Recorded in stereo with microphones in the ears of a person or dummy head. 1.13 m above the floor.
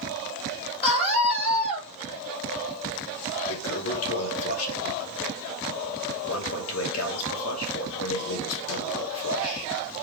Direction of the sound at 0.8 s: 30° left (ahead or behind).